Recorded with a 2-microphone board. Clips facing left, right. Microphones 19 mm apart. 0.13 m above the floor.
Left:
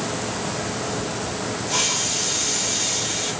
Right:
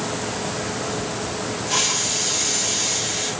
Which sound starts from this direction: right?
A hiss, at 1.7 s.